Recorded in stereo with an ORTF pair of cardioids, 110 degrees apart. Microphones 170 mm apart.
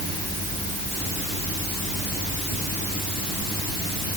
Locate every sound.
Only background noise.